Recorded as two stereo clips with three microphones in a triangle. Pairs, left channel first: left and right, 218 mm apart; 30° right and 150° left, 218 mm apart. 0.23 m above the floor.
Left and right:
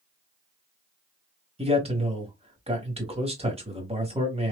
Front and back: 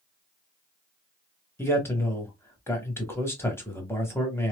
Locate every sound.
1.6 s a man speaking: 95° right, 1.1 m